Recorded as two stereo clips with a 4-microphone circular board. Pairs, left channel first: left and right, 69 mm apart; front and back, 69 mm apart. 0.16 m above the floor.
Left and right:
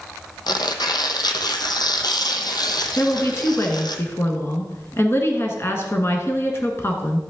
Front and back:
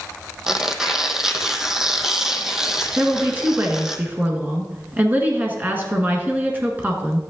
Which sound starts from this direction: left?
Tearing paper, at 0.5 s.